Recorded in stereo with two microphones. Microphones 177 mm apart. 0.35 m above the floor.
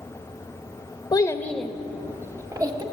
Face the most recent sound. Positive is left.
turn(degrees=-25)  # may be behind; listen again after turning